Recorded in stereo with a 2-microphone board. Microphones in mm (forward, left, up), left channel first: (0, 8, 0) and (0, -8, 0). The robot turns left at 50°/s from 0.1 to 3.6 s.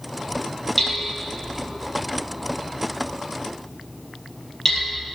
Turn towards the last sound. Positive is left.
turn(degrees=25)  # may be behind; listen again after turning